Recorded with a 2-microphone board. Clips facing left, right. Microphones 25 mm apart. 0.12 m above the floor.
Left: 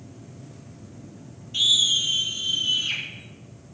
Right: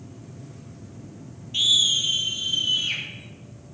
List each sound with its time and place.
1.5 s a scream: 15° right (ahead or behind), 3 m; by 3.0 s centre (ahead or behind), 4.5 m